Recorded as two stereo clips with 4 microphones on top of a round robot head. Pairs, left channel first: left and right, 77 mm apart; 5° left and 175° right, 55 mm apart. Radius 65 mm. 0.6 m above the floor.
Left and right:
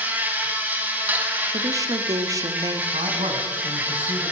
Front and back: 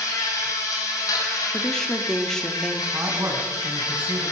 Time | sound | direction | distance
0.0 | an insect | 20° right | 4 m
1.5 | a woman speaking | 75° right | 1.7 m
2.9 | a man speaking | 110° right | 5 m